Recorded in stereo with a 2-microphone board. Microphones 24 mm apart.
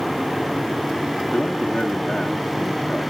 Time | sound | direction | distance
1.3 | a man speaking | 60° left (ahead or behind) | 1.3 m